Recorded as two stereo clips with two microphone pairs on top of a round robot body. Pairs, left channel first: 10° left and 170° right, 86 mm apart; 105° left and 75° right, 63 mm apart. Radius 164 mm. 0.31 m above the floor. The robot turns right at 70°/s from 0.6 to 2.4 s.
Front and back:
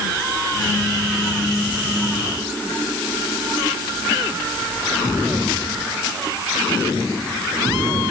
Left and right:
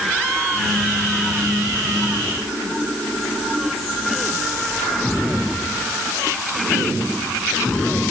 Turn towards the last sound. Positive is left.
No sound to turn to.